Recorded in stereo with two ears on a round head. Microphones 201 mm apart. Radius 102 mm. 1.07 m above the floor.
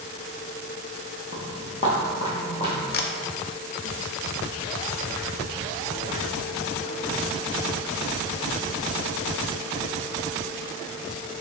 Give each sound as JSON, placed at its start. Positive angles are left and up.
{"t": 1.3, "sound": "footsteps", "side_deg": 35, "distance_m": 1.5}
{"t": 2.9, "sound": "a camera shutter", "side_deg": 45, "distance_m": 0.5}